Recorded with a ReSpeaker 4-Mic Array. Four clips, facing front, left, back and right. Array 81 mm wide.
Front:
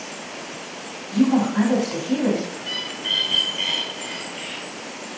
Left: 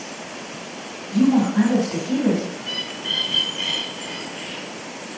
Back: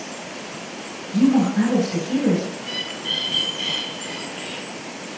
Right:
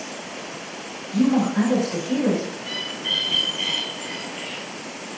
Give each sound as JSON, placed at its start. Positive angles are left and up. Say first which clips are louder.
{"t": 1.1, "sound": "a woman speaking", "louder": "left 2 dB, back 1 dB", "azimuth_deg": 20, "distance_m": 2.0}
{"t": 2.6, "sound": "a bird", "louder": "even, back 1 dB", "azimuth_deg": 5, "distance_m": 1.8}